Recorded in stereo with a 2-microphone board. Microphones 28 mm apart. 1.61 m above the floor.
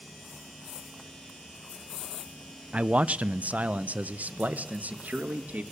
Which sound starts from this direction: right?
A man speaking, at 2.7 s.